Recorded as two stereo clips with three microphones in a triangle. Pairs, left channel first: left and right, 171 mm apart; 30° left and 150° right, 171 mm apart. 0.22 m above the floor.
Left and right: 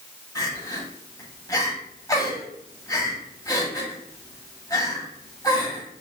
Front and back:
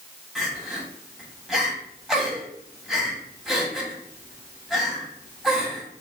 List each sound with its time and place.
0.3 s crying: 125° left, 1.1 m